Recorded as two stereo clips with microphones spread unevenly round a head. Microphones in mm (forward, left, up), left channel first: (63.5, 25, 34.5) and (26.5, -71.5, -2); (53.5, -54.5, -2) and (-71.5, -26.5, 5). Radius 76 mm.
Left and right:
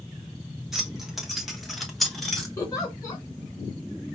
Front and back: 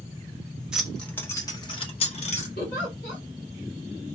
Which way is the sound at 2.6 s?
10° left.